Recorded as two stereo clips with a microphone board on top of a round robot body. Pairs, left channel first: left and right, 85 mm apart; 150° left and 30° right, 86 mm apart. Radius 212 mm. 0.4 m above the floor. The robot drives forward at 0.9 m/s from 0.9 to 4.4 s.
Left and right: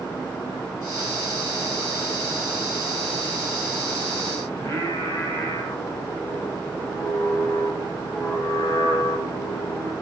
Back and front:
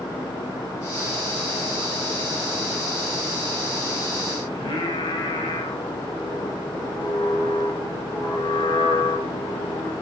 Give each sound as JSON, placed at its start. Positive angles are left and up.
{"t": 4.5, "sound": "singing", "azimuth_deg": 145, "distance_m": 3.0}